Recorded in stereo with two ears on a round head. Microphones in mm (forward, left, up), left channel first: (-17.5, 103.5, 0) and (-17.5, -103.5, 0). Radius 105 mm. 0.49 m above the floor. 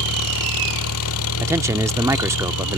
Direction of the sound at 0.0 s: 75° left (ahead or behind).